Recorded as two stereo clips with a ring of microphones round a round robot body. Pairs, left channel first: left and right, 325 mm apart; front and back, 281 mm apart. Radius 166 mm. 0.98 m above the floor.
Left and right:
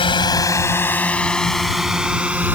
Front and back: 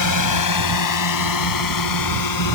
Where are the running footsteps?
No running footsteps in this recording.